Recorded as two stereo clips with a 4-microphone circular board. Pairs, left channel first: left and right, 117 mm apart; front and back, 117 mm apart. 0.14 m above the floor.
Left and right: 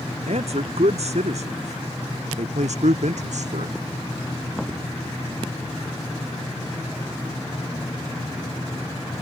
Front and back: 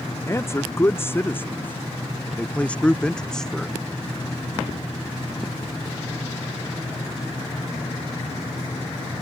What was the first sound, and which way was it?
A man speaking, 65° right.